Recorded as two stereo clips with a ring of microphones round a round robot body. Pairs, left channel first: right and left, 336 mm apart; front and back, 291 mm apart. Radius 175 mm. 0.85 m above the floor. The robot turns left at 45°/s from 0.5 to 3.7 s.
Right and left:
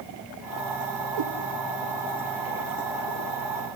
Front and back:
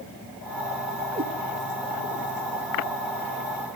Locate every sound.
1.1 s a cat meowing: 110° left, 3 m; by 1.3 s 105° left, 3 m